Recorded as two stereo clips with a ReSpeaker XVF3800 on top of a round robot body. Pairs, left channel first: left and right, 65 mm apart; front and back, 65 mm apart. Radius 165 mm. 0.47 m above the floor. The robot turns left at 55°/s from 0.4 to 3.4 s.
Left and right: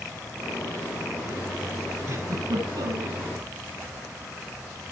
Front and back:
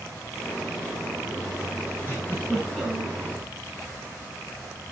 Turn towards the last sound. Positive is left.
turn(degrees=-130)